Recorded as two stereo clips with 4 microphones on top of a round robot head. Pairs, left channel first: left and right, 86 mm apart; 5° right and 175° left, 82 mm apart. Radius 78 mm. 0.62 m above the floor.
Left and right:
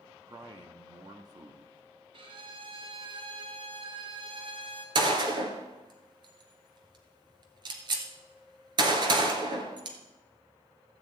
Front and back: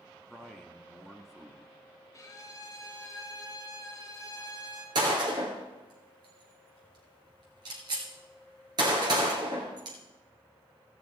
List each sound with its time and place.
0.3 s a man speaking: 95° right, 1.3 m
2.1 s a violin: 60° right, 1.7 m
5.0 s a gunshot: 130° right, 1.7 m